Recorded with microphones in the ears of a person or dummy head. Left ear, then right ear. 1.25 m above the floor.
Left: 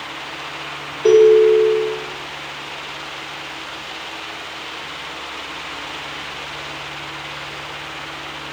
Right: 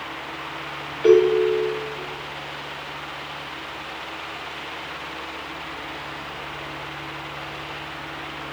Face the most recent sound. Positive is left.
turn(degrees=-25)  # may be behind; listen again after turning